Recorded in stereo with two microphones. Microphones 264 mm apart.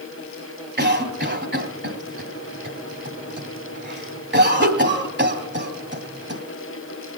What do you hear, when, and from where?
0.8 s a cough: 40° right (ahead or behind), 1.7 m